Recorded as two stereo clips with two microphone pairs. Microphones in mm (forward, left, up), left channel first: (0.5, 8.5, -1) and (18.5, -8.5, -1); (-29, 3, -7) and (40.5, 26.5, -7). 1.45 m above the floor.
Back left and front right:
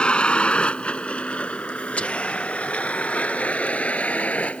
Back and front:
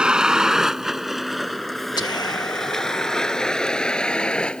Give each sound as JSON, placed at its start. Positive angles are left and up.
{"t": 0.0, "sound": "a vehicle", "azimuth_deg": 95}
{"t": 2.0, "sound": "whispering", "azimuth_deg": 175}